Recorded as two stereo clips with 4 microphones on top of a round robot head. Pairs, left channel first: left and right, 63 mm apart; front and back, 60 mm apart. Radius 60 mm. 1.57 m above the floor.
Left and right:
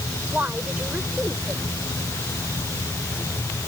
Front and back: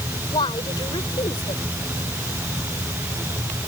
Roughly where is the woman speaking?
Ahead.